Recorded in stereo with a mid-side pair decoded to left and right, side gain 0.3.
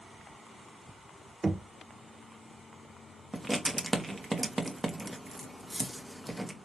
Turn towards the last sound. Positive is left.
turn(degrees=-30)